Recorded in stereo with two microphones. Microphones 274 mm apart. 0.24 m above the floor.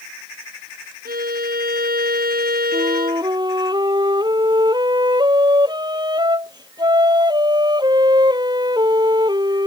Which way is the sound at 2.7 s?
15° right (ahead or behind).